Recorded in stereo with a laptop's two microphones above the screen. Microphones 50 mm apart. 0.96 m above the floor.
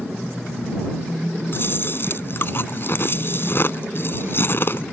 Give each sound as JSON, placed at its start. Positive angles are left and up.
{"t": 1.5, "sound": "chewing", "side_deg": 45}